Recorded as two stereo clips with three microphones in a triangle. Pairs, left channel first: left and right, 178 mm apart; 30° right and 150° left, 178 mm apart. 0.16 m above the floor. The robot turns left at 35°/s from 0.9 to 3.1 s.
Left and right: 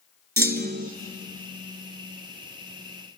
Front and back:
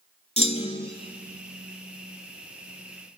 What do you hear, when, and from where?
0.4 s a clunk: 80° right, 1.0 m